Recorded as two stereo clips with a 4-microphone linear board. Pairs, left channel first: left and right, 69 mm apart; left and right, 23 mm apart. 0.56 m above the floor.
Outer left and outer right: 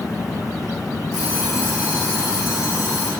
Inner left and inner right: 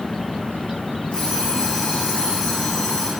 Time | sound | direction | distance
1.1 | an alarm clock | 80° left | 3.5 m